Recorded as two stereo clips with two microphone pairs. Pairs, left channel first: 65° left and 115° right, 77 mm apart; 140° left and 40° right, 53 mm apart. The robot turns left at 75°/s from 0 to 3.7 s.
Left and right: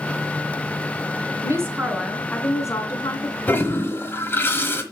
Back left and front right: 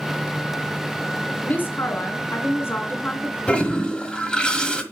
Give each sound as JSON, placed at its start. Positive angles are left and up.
{"t": 1.4, "sound": "a woman speaking", "azimuth_deg": -155, "distance_m": 2.0}
{"t": 3.5, "sound": "a toilet flushing", "azimuth_deg": 105, "distance_m": 1.2}